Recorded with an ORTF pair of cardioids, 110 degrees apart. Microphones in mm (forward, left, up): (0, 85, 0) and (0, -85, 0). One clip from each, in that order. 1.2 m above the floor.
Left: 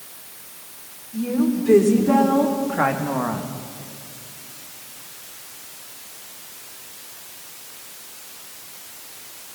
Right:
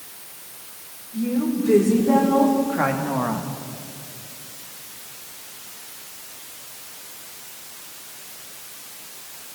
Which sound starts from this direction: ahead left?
A woman speaking, at 1.1 s.